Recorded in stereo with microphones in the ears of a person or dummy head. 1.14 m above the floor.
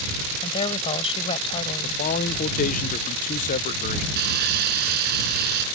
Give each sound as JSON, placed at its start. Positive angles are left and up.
{"t": 0.4, "sound": "a woman speaking", "side_deg": 35}
{"t": 1.8, "sound": "a man speaking", "side_deg": 40}
{"t": 4.2, "sound": "sawing", "side_deg": -55}